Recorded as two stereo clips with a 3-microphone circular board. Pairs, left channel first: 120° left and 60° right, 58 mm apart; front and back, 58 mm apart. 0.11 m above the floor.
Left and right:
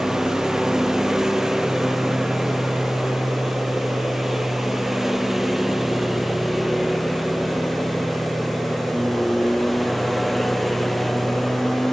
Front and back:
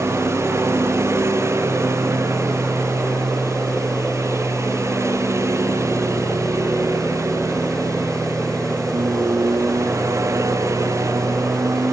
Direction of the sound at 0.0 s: 145° right.